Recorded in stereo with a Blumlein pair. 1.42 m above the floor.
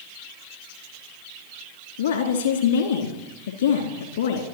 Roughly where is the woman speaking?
Ahead left.